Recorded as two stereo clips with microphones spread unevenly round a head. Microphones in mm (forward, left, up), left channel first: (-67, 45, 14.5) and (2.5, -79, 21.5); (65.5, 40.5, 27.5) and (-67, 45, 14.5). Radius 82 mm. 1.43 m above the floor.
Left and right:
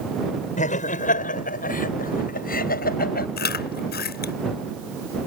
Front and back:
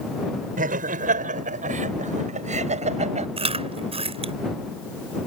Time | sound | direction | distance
0.6 | laughter | 155° left | ?
3.4 | chewing | 130° left | ?